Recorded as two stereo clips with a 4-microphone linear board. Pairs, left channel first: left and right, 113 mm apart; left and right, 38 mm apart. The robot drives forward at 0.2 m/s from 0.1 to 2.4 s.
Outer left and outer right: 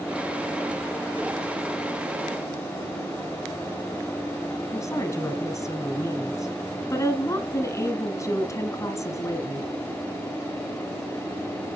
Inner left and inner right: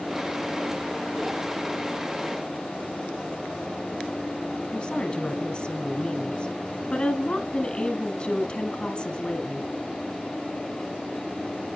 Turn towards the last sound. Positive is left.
turn(degrees=30)  # may be behind; listen again after turning